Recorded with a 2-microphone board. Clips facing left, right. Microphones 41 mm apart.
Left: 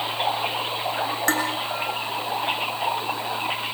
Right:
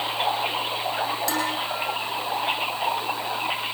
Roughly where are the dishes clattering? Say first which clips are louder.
Left 6 dB; left.